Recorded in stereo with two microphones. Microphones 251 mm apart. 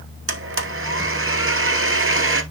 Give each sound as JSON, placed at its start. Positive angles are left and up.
{"t": 0.3, "sound": "a blender", "side_deg": -60, "distance_m": 1.1}